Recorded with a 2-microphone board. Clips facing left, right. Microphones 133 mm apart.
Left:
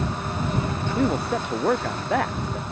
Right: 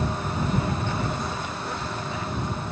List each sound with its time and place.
1.0 s a man speaking: 70° left (ahead or behind); by 2.6 s 75° left (ahead or behind)